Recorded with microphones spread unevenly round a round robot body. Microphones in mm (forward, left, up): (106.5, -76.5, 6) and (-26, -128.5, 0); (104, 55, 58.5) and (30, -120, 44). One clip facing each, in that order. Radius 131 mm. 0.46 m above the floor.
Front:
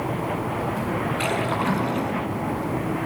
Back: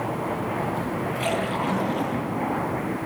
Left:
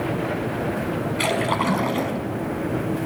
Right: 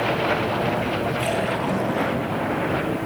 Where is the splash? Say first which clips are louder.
Front 1 dB, left 1 dB; 65° left, 5.5 m.